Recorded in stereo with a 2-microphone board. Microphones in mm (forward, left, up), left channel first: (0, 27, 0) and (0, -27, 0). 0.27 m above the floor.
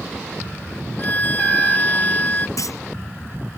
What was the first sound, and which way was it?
A violin, 30° left (ahead or behind).